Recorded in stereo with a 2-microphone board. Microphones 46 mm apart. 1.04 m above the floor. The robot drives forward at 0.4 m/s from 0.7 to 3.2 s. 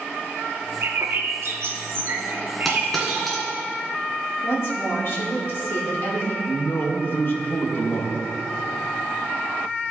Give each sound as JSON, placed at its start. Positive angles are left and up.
{"t": 0.8, "sound": "a bird", "side_deg": -65, "distance_m": 0.8}
{"t": 2.6, "sound": "a dropped coin", "side_deg": 5, "distance_m": 1.9}
{"t": 4.4, "sound": "a woman speaking", "side_deg": 60, "distance_m": 2.0}
{"t": 6.5, "sound": "a man speaking", "side_deg": 50, "distance_m": 1.2}